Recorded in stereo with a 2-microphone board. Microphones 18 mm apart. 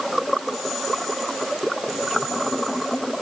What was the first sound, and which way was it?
Only background noise.